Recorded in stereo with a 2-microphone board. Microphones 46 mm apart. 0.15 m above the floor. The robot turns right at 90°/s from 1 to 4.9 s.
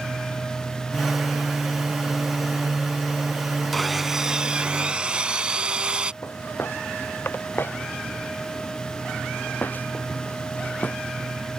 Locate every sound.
3.7 s sawing: 5° left (ahead or behind); by 6.1 s 20° right (ahead or behind)
6.2 s footsteps: 55° left (ahead or behind); by 11.0 s 35° left (ahead or behind)